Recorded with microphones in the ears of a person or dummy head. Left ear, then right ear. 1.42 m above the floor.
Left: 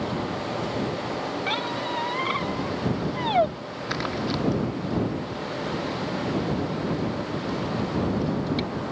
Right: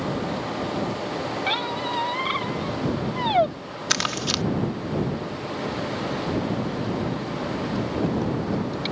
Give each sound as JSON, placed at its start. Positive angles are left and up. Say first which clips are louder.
{"t": 1.5, "sound": "a squeak", "louder": "right 3 dB", "side_deg": -10}
{"t": 3.9, "sound": "crumpling", "louder": "right 5 dB", "side_deg": -70}